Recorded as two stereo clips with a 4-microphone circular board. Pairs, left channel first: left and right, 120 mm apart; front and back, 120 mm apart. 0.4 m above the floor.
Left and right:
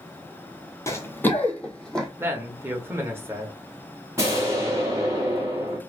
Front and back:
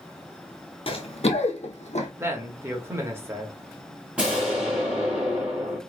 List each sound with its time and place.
0.9 s running footsteps: 30° left, 0.7 m; by 2.1 s 5° left, 1.2 m
2.2 s a man speaking: 135° right, 1.0 m
4.2 s an explosion: 110° right, 1.4 m